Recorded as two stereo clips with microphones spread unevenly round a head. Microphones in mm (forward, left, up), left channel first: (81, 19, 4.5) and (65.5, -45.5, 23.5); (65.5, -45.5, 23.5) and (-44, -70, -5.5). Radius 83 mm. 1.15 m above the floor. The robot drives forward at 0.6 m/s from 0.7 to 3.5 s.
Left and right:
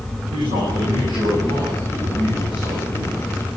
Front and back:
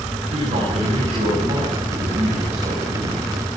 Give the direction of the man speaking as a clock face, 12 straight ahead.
5 o'clock.